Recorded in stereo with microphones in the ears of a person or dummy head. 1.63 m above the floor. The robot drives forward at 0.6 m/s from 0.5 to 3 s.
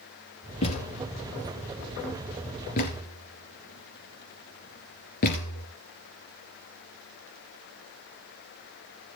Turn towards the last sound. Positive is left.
turn(degrees=45)  # may be behind; listen again after turning